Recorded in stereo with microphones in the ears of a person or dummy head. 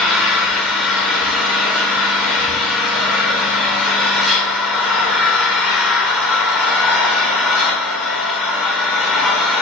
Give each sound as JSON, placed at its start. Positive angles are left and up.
{"t": 0.0, "sound": "an engine running", "side_deg": 5, "distance_m": 0.7}